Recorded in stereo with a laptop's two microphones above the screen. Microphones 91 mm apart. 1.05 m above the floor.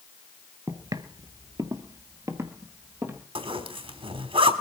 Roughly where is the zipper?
Right.